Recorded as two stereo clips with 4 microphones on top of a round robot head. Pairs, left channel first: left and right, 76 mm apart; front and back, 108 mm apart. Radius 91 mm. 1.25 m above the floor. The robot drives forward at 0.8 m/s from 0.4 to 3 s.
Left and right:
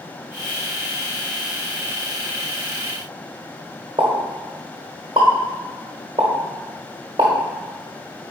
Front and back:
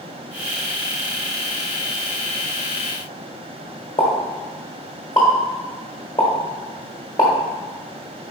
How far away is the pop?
About 1.2 m.